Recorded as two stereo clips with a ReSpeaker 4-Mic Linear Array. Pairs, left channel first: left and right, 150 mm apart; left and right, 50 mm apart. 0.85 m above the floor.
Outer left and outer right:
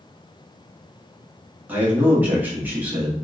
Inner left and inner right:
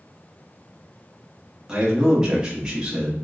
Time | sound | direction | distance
1.7 | a man speaking | 10° right (ahead or behind) | 1.3 m